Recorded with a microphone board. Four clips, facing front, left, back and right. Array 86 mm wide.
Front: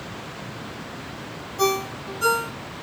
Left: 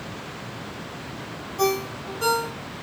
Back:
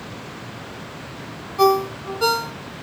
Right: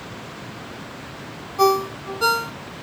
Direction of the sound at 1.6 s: 145° right.